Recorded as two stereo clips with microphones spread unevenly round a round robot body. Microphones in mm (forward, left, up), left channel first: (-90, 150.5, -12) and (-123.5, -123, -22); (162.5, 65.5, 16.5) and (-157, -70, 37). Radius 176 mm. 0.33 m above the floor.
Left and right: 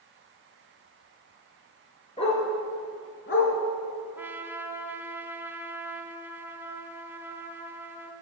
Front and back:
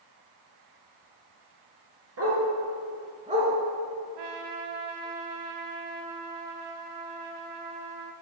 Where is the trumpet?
Straight behind, 0.8 m.